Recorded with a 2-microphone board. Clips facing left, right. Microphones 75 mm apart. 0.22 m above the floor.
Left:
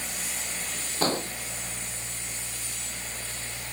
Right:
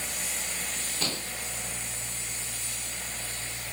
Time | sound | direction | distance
1.0 | an explosion | 40° left (ahead or behind) | ?